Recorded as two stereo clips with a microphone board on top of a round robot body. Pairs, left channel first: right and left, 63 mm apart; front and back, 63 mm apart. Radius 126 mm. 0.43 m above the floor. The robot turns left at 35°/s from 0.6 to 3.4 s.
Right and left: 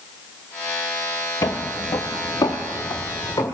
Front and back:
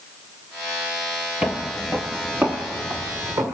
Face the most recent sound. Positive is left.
turn(degrees=-140)